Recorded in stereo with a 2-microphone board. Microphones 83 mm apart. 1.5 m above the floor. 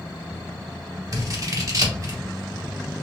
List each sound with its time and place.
1.1 s scissors: 45° right (ahead or behind), 0.8 m